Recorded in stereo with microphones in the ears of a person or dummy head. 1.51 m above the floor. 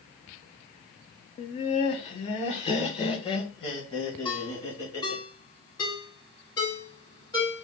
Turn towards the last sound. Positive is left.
turn(degrees=20)  # may be behind; listen again after turning